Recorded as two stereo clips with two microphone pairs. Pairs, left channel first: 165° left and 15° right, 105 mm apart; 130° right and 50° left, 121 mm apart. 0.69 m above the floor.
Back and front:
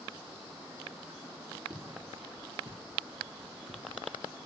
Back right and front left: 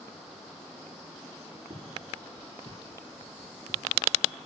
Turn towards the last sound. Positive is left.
turn(degrees=-30)